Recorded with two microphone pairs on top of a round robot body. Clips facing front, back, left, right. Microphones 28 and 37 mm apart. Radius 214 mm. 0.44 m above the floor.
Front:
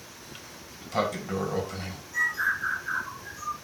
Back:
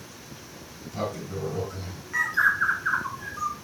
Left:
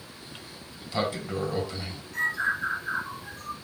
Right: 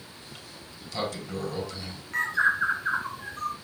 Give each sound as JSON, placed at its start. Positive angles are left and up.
{"t": 0.2, "sound": "a sliding door", "azimuth_deg": 20, "distance_m": 2.0}
{"t": 2.1, "sound": "a bird", "azimuth_deg": -140, "distance_m": 1.5}